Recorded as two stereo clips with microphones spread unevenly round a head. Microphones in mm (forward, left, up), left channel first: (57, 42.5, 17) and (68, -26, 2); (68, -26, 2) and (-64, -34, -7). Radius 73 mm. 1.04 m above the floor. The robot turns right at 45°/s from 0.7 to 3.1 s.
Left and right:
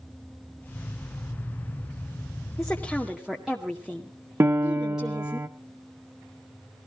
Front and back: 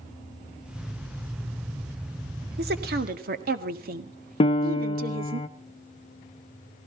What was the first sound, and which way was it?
A woman speaking, 170° left.